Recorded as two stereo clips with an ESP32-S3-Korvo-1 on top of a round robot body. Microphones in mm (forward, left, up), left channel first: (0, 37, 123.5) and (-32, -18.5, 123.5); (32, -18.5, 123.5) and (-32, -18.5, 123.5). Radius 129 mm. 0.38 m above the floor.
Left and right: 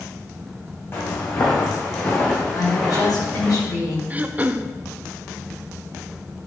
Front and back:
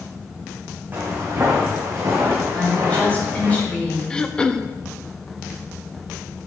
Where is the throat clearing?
70° right, 0.5 m.